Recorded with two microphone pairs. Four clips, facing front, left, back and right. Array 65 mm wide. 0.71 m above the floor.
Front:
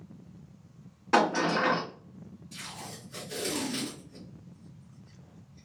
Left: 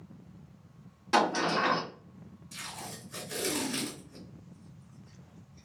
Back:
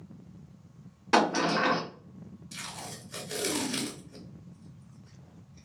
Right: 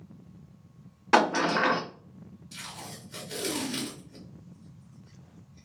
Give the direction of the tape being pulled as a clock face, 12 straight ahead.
6 o'clock.